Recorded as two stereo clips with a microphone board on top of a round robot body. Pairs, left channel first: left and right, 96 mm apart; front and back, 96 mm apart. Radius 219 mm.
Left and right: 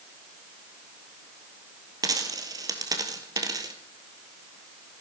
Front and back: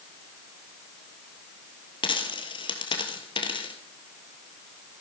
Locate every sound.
2.0 s a dropped coin: 40° right, 1.8 m